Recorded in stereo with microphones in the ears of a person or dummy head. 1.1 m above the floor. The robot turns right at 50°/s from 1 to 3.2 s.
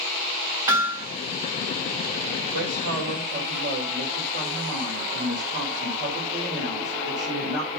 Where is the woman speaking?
95° right, 4 m; by 7.8 s 60° right, 4 m.